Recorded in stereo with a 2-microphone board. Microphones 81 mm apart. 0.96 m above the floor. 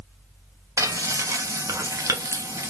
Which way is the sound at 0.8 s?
40° right (ahead or behind).